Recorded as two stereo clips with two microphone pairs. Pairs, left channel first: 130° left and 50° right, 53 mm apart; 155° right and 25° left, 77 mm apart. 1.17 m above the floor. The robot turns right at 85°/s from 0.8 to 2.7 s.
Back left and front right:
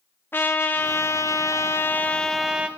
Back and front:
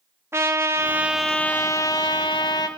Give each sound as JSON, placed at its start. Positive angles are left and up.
{"t": 0.3, "sound": "a trumpet", "azimuth_deg": 80, "distance_m": 2.0}